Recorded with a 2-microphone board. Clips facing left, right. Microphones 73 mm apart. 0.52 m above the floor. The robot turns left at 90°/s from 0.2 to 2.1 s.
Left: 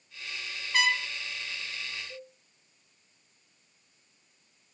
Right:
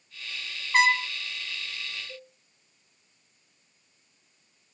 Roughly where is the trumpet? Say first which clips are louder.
Right 5 dB; behind right.